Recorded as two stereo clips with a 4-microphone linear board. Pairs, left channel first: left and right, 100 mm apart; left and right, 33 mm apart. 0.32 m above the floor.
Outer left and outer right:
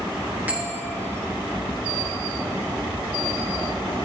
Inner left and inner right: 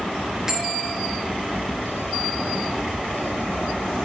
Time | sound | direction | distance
0.5 | a bell | 15° right (ahead or behind) | 4.5 m